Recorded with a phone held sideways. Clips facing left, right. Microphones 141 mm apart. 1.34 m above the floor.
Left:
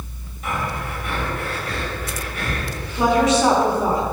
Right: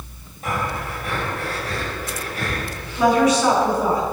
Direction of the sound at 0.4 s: 40° right (ahead or behind).